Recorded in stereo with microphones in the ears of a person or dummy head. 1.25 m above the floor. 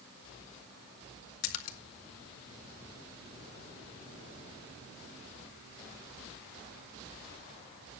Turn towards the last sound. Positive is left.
turn(degrees=75)  # may be behind; listen again after turning